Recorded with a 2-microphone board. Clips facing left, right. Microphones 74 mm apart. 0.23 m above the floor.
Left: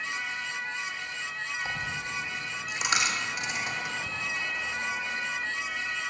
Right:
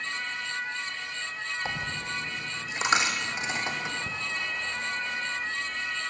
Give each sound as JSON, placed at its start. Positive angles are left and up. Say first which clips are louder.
{"t": 1.6, "sound": "a dropped coin", "louder": "even", "side_deg": -25, "distance_m": 2.5}